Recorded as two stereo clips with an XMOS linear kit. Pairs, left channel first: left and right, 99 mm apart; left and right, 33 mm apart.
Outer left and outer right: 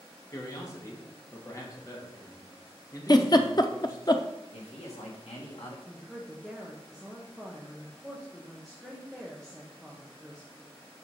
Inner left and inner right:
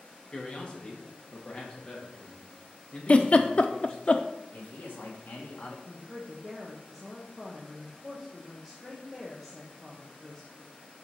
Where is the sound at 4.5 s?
80° left, 2 m.